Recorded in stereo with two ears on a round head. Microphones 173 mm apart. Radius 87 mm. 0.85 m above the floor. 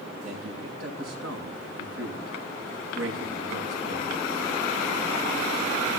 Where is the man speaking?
85° right, 7 m.